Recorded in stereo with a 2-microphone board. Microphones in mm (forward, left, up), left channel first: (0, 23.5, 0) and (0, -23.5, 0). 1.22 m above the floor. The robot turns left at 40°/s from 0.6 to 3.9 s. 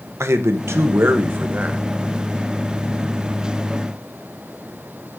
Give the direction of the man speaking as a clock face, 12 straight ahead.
3 o'clock.